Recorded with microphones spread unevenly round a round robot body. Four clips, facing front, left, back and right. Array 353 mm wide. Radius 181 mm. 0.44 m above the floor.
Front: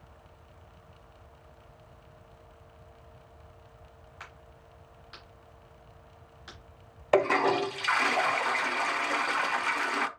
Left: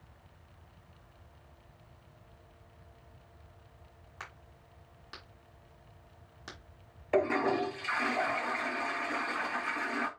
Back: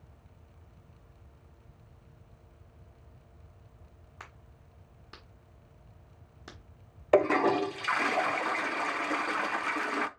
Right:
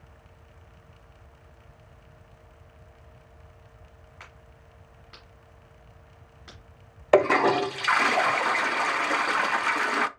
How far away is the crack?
About 1.3 m.